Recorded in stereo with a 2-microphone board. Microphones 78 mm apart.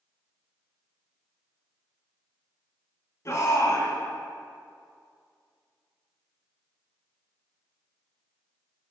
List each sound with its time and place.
3.2 s a shout: 40° left (ahead or behind), 1.9 m